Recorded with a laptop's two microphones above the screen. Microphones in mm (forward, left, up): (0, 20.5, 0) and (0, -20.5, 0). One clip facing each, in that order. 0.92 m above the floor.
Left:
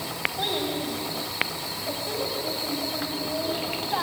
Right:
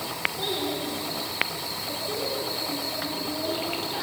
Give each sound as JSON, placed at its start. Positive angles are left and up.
{"t": 0.4, "sound": "a child speaking", "side_deg": 40, "distance_m": 4.0}